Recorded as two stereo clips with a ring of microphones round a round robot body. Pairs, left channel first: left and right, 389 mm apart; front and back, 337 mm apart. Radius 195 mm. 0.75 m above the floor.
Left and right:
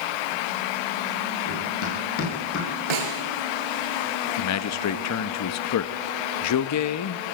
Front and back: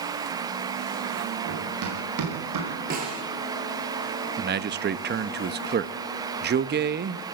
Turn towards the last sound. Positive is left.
turn(degrees=125)